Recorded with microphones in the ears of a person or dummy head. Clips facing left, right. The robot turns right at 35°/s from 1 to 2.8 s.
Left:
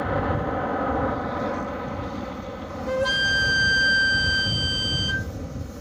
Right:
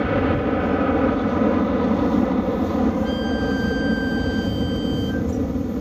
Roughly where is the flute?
Left.